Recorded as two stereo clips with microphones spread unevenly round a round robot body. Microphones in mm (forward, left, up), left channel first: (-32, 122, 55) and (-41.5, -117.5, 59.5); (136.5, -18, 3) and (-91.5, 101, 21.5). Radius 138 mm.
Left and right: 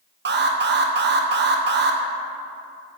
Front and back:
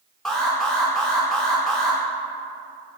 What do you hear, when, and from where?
0.2 s an alarm: 110° right, 0.7 m